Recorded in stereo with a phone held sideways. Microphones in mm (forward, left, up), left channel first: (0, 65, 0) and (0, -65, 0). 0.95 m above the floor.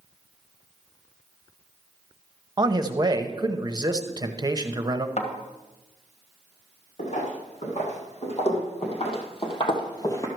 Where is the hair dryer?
No hair dryer in this recording.